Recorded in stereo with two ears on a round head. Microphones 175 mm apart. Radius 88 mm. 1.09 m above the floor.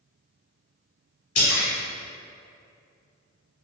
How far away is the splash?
About 1.1 m.